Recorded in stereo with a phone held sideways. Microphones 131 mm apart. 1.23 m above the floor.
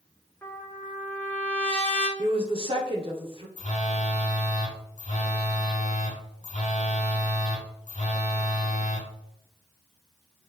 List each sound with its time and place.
0.4 s a trumpet: 15° left (ahead or behind), 1.0 m
2.2 s a woman speaking: 45° right (ahead or behind), 0.9 m
3.6 s a phone buzzing: 65° left (ahead or behind), 1.0 m